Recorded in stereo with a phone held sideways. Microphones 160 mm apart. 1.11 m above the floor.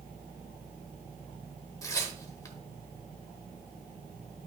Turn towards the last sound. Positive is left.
turn(degrees=20)  # may be behind; listen again after turning